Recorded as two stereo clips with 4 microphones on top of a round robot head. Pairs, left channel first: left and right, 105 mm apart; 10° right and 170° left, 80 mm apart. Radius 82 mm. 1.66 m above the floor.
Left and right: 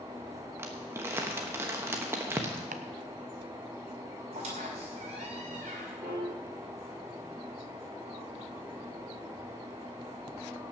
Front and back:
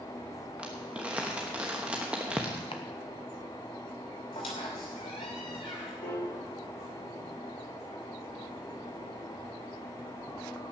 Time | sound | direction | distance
0.6 | crumpling | 125° right | 0.9 m
2.7 | chopping | 60° right | 0.6 m
4.3 | a squeak | 45° right | 2.5 m
6.0 | a piano | 10° right | 6.5 m